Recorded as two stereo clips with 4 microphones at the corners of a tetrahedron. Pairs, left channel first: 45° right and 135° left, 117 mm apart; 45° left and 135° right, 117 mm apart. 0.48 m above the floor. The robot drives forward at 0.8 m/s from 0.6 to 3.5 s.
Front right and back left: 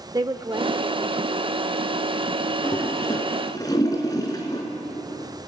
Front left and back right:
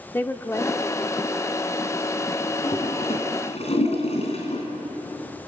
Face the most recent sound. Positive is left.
turn(degrees=15)